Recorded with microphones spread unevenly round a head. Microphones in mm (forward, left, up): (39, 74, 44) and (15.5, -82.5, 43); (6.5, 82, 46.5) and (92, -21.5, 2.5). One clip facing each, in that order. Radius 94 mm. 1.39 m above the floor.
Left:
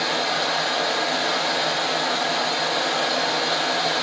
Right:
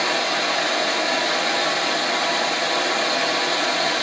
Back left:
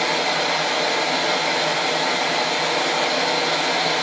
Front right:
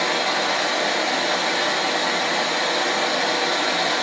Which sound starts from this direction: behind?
Running water, at 0.0 s.